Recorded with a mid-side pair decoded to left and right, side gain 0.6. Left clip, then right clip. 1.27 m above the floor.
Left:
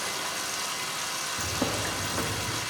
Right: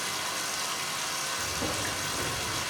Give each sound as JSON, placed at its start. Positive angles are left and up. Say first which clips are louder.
{"t": 0.0, "sound": "running water", "louder": "even", "azimuth_deg": 0, "distance_m": 0.9}
{"t": 1.4, "sound": "a bird", "louder": "left 2 dB", "azimuth_deg": 45, "distance_m": 1.6}